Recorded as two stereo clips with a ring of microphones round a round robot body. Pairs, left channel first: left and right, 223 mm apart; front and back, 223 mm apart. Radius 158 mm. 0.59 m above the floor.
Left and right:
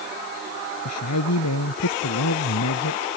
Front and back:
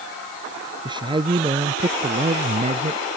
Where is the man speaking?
110° left; by 3.0 s 125° left.